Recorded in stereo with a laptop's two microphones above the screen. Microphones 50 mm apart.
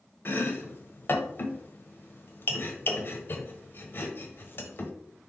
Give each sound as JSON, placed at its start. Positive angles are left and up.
{"t": 0.2, "sound": "chopping", "side_deg": 45, "distance_m": 1.2}